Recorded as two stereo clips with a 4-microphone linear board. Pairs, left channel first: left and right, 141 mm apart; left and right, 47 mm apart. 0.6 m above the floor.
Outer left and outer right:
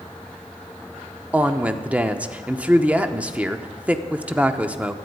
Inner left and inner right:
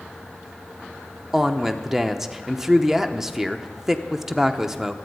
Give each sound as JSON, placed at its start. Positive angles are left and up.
{"t": 1.3, "sound": "a woman speaking", "side_deg": -10, "distance_m": 0.9}